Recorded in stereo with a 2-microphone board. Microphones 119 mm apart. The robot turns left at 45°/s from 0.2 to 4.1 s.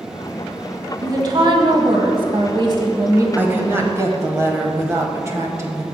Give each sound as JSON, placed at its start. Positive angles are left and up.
{"t": 1.0, "sound": "a woman speaking", "azimuth_deg": -45, "distance_m": 1.4}
{"t": 3.4, "sound": "a woman speaking", "azimuth_deg": -35, "distance_m": 1.1}